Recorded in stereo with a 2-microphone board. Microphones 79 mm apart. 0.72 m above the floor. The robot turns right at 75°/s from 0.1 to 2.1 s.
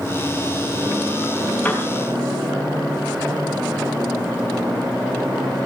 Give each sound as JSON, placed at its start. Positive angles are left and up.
{"t": 1.6, "sound": "a piano", "side_deg": 20, "distance_m": 6.0}